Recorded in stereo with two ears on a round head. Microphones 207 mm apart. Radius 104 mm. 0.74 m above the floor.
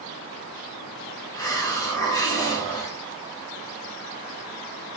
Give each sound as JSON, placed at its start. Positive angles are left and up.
{"t": 1.3, "sound": "a hiss", "side_deg": 15, "distance_m": 1.2}